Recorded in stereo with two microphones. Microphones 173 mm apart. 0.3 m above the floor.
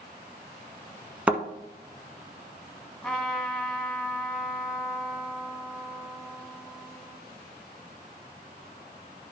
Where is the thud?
10° right (ahead or behind), 1.1 m.